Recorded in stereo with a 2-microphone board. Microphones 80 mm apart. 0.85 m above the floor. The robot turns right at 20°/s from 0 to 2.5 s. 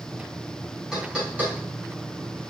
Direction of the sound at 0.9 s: 10° right (ahead or behind).